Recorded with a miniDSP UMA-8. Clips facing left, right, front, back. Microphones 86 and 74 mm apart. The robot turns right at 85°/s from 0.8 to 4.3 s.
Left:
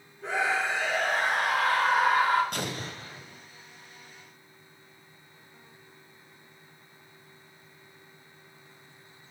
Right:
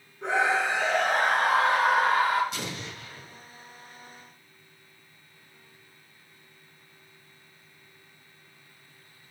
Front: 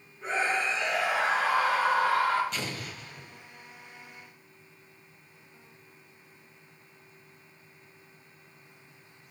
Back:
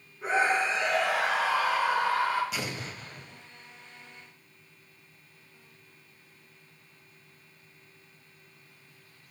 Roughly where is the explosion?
Left.